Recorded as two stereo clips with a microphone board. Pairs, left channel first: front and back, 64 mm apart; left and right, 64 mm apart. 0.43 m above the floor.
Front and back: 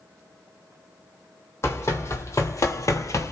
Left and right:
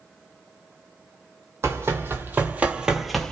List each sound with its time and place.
1.6 s running footsteps: 45° right, 1.1 m; by 3.3 s 15° left, 0.6 m